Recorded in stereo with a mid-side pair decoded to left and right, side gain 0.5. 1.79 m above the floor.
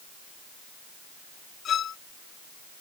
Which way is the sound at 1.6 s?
55° left.